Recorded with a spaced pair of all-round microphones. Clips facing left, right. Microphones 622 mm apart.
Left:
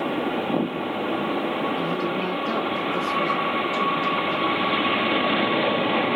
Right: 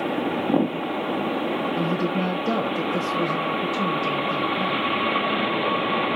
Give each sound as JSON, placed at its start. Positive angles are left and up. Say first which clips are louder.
{"t": 1.8, "sound": "a woman speaking", "louder": "right 2 dB", "side_deg": -55, "distance_m": 1.0}